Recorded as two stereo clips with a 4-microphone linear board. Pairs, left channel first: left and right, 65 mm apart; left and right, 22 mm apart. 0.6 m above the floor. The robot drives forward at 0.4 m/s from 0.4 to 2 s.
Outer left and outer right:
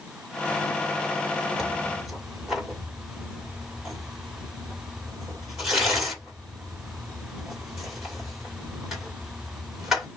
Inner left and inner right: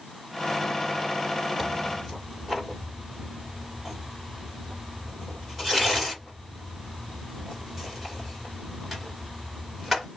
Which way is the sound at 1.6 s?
10° right (ahead or behind).